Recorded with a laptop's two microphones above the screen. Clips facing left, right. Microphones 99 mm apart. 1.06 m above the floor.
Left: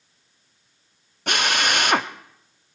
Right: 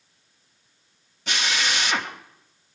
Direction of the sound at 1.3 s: 55° left (ahead or behind).